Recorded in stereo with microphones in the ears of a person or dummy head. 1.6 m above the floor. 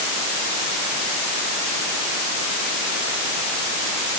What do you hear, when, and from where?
Only background noise.